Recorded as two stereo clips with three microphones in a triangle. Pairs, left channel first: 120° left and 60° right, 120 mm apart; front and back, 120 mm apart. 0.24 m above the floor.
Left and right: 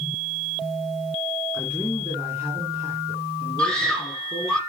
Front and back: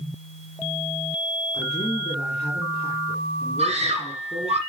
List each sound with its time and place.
1.5 s a man speaking: 15° left, 2.5 m
3.6 s a scream: 155° right, 6.5 m